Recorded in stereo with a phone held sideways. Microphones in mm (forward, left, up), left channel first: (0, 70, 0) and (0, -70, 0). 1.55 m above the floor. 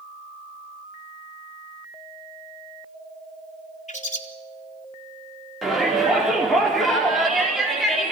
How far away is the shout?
About 4 m.